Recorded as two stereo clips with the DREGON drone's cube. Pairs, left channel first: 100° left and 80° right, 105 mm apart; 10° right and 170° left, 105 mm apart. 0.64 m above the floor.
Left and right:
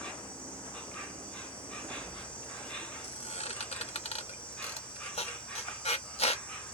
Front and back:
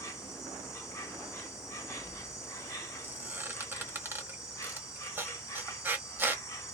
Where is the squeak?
100° left, 0.8 m.